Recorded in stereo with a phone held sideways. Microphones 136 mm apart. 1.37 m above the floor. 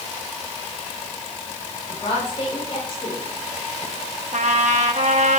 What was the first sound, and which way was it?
A woman speaking, 45° left (ahead or behind).